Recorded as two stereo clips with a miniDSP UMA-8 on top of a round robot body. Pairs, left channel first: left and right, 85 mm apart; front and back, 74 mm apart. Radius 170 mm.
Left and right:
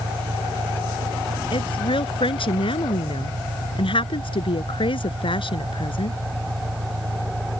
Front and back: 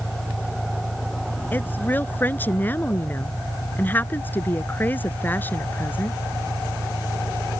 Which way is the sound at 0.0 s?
60° right.